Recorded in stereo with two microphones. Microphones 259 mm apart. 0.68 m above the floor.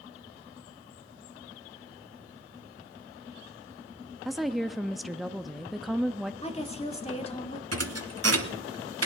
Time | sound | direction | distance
4.2 | a woman speaking | centre (ahead or behind) | 0.6 m
6.4 | a woman speaking | 25° left (ahead or behind) | 1.4 m
7.7 | a thud | 70° right (ahead or behind) | 1.2 m